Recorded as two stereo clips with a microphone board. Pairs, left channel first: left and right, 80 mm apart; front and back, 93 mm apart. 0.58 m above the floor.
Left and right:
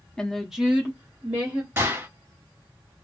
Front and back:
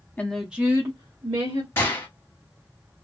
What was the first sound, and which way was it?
A woman speaking, 30° left.